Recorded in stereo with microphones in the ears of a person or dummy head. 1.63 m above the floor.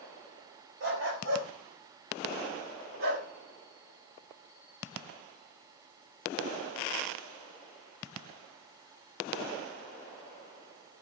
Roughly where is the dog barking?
Right.